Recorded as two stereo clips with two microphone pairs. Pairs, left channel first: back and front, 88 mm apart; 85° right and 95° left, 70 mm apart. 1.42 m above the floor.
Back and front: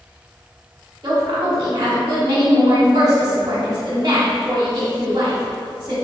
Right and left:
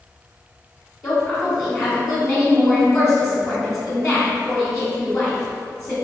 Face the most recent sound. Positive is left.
turn(degrees=-45)